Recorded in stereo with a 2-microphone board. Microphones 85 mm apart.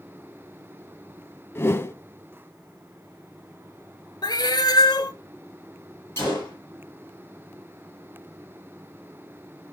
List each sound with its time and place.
1.6 s a whoosh: 30° left (ahead or behind), 0.6 m
4.2 s a cat meowing: 55° left (ahead or behind), 0.8 m
6.2 s a gunshot: 35° left (ahead or behind), 8.5 m